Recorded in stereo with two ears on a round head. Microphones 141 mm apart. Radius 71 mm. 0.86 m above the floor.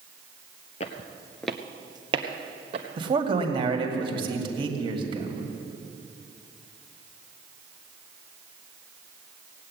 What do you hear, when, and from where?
0.8 s footsteps: 40° left (ahead or behind), 1.1 m; by 2.9 s 45° right (ahead or behind), 2 m
3.0 s a man speaking: 30° right (ahead or behind), 2 m